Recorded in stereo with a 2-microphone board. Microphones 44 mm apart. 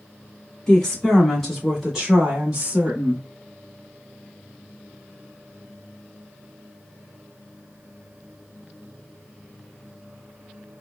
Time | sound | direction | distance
0.7 | a woman speaking | 15° left (ahead or behind) | 1.7 m